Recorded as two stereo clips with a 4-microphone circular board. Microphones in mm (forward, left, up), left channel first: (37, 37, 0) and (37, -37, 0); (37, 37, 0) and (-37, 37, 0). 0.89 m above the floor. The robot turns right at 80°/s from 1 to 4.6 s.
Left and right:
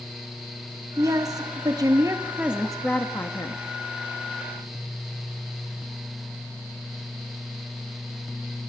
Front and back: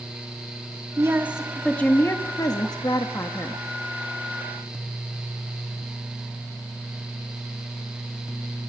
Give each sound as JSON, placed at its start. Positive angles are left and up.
{"t": 1.0, "sound": "a woman speaking", "azimuth_deg": -135, "distance_m": 1.5}